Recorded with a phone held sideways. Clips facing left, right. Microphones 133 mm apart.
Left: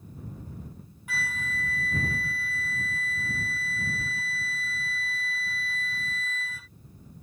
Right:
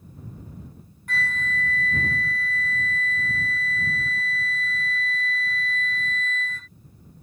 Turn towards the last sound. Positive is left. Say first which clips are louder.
# right 5 dB
turn(degrees=10)  # may be behind; listen again after turning